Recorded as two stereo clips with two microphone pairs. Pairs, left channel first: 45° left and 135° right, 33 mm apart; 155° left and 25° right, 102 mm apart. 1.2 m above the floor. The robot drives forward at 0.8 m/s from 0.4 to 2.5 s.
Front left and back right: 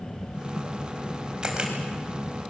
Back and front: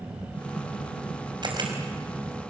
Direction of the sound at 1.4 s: 65° right.